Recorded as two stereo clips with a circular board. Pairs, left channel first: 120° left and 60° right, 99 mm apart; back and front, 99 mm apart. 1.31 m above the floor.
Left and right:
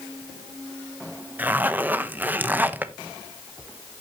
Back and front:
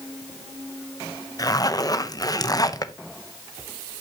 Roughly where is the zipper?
Behind right.